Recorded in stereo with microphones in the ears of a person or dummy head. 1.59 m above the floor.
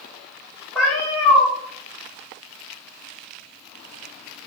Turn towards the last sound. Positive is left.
turn(degrees=10)  # may be behind; listen again after turning